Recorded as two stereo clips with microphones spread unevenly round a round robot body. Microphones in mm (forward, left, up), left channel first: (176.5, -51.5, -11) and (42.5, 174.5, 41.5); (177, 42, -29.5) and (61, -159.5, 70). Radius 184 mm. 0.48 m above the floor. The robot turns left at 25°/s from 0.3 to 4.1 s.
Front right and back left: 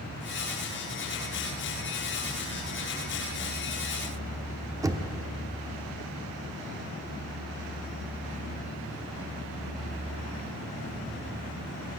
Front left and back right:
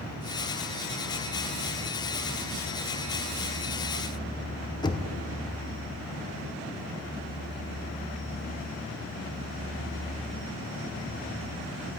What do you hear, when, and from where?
4.8 s knocking: 35° left, 0.7 m